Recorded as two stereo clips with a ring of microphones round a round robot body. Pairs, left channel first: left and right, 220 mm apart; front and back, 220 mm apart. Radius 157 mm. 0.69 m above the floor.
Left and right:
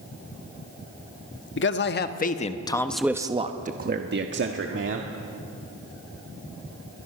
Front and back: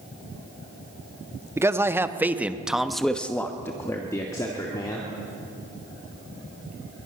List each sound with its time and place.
1.6 s a man speaking: 105° left, 1.5 m; by 5.1 s 75° right, 2 m